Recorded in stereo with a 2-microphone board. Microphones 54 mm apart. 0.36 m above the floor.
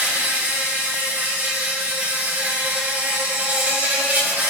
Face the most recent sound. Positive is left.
turn(degrees=-35)  # may be behind; listen again after turning